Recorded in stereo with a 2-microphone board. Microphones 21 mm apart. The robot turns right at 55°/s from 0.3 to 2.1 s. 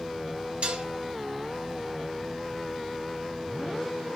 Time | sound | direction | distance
0.6 | dishes clattering | 55° right (ahead or behind) | 0.6 m